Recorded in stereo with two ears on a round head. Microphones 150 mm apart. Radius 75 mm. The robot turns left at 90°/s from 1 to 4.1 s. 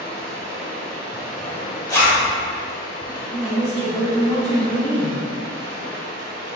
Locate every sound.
0.0 s running water: 145° right, 0.7 m; by 6.6 s 65° right, 0.7 m
1.9 s a zipper: 20° left (ahead or behind), 0.9 m; by 2.2 s 10° right (ahead or behind), 0.9 m
3.3 s a woman speaking: 170° right, 1.8 m; by 5.2 s 115° left, 1.8 m